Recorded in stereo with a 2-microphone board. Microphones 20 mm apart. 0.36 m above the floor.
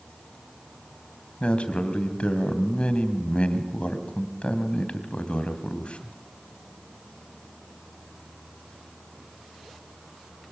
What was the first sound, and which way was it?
A man speaking, 65° left (ahead or behind).